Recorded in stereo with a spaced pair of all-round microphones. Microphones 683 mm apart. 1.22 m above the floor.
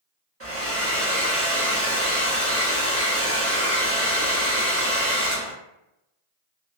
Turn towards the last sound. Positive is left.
turn(degrees=-20)  # may be behind; listen again after turning